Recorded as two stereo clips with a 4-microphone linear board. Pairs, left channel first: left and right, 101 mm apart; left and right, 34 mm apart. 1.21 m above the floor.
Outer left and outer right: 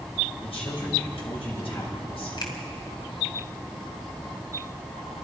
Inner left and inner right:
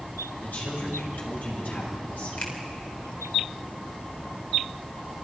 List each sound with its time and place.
0.4 s a woman speaking: 70° left (ahead or behind), 6.5 m
2.4 s a finger snap: 50° left (ahead or behind), 3 m